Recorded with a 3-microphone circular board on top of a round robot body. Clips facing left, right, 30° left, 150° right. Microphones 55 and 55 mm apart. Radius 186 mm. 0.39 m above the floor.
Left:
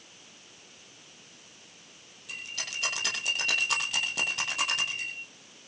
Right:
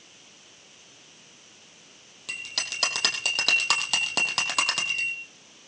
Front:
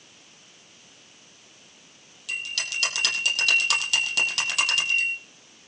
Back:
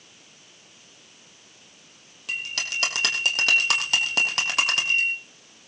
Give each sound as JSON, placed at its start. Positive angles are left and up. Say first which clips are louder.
{"t": 2.3, "sound": "a bell", "louder": "right 4 dB, back 1 dB", "azimuth_deg": -95, "distance_m": 5.0}